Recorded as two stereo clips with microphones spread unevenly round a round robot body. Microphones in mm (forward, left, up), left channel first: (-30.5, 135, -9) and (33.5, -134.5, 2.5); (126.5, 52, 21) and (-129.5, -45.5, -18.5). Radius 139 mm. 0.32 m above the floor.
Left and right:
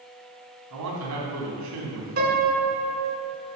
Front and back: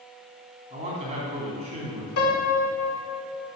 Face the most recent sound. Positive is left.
turn(degrees=-20)